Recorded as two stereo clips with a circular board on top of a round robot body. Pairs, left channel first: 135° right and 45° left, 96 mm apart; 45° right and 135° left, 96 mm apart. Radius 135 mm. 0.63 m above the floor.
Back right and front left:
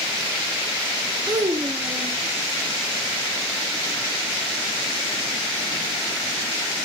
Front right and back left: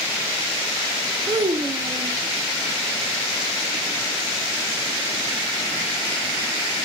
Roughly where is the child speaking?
Left.